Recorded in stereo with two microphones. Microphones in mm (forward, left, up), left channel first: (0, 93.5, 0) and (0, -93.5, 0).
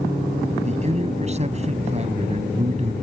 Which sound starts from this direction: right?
A man speaking, at 0.7 s.